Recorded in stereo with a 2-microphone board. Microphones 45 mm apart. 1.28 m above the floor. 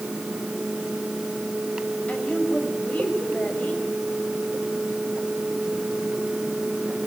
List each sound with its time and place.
2.1 s a woman speaking: 35° left (ahead or behind), 6 m